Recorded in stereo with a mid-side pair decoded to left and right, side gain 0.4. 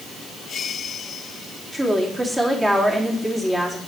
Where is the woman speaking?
20° right, 4 m.